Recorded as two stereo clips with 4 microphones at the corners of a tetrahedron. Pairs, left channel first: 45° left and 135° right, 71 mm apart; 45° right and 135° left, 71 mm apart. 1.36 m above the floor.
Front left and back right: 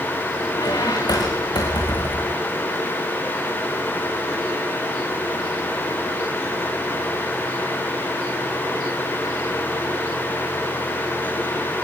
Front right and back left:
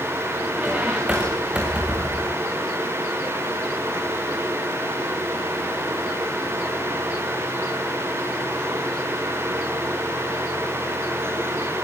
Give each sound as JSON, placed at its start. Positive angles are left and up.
{"t": 0.6, "sound": "a squeak", "azimuth_deg": 60, "distance_m": 6.0}